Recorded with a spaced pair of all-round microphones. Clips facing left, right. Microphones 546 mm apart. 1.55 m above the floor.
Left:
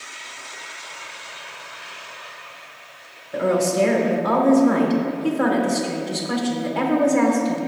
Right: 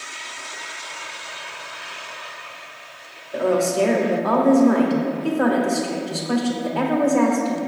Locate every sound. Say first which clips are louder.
3.3 s a woman speaking: even; 40° left (ahead or behind), 1.4 m